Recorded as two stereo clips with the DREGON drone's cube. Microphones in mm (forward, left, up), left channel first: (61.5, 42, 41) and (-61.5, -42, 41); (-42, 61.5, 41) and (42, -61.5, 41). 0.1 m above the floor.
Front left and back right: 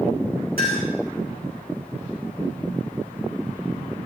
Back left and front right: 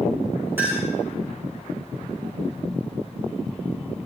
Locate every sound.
0.6 s a clink: 135° right, 5 m